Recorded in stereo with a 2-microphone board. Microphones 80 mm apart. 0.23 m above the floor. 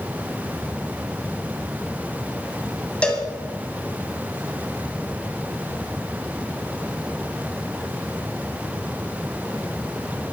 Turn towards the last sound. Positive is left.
turn(degrees=15)  # may be behind; listen again after turning